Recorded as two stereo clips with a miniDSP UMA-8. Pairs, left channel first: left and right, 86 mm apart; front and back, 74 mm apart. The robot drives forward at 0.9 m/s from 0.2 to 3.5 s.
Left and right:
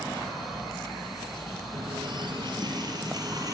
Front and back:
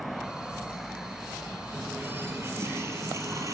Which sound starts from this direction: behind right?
A running tap, at 1.7 s.